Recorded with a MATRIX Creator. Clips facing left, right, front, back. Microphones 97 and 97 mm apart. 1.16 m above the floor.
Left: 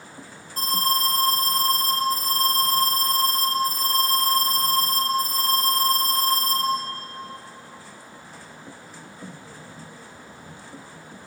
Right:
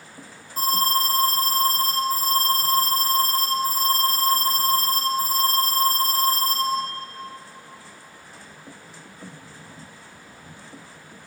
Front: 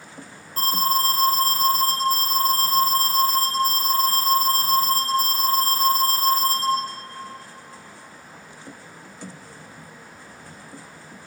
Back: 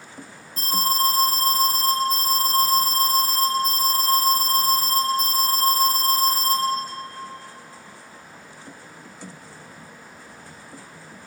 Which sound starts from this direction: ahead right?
An alarm, at 0.6 s.